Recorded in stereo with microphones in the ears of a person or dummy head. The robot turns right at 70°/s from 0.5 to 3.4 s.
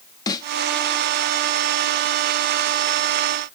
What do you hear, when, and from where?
0.3 s a snare drum: 20° left (ahead or behind), 0.7 m